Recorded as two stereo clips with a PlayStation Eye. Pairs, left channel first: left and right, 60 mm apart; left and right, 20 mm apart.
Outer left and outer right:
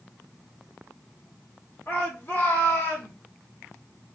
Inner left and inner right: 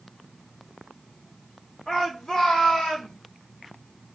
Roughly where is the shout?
Left.